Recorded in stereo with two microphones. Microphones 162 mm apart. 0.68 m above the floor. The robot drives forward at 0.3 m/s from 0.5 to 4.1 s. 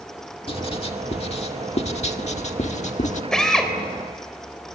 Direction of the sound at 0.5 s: 35° left (ahead or behind).